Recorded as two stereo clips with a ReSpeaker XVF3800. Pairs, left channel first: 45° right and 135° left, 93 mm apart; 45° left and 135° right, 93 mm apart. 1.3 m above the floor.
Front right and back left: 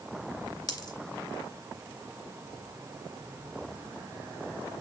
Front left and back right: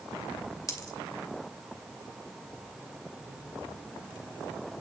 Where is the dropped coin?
5° right, 2 m.